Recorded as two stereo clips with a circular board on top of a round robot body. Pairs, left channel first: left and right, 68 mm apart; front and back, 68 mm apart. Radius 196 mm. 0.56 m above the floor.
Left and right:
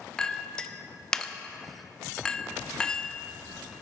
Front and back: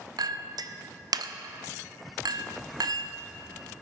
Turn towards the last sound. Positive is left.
turn(degrees=170)